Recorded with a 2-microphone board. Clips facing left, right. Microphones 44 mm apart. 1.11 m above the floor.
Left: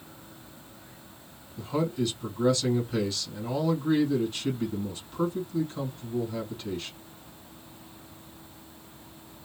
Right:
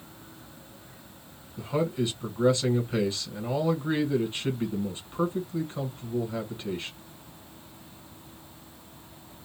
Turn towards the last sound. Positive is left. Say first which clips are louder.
# right 1 dB
turn(degrees=-25)  # may be behind; listen again after turning